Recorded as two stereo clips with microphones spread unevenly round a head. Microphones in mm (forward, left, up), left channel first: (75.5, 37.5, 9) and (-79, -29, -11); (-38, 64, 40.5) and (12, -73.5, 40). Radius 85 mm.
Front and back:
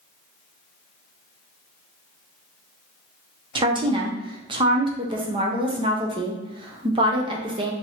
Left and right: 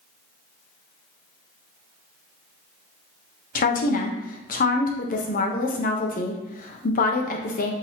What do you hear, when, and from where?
3.5 s a woman speaking: 140° left, 0.9 m